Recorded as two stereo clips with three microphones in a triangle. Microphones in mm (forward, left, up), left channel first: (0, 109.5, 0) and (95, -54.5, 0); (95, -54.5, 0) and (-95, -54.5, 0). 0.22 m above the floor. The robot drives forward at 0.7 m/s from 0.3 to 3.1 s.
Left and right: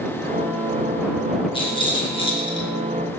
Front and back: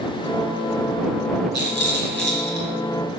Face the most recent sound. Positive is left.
turn(degrees=180)